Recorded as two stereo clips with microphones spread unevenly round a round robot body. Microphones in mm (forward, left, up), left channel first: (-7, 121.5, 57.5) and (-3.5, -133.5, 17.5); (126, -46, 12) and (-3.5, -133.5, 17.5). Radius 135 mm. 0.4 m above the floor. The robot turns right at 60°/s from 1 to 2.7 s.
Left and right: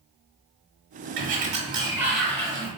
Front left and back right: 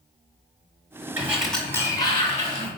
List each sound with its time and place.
1.2 s a sliding door: 70° right, 1.1 m; by 2.7 s 20° left, 1.1 m